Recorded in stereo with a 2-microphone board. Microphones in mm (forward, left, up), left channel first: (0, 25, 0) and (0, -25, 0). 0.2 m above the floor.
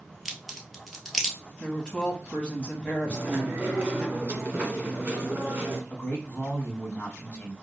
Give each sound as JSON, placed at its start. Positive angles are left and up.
{"t": 0.2, "sound": "a crack", "side_deg": 0, "distance_m": 1.2}
{"t": 1.6, "sound": "a woman speaking", "side_deg": 20, "distance_m": 1.0}
{"t": 3.1, "sound": "chewing", "side_deg": -25, "distance_m": 1.4}
{"t": 5.9, "sound": "a man speaking", "side_deg": 40, "distance_m": 1.4}